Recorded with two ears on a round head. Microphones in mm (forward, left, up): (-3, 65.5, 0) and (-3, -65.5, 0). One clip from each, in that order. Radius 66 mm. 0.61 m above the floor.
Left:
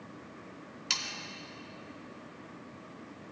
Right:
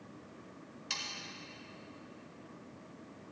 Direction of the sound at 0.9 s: 40° left (ahead or behind).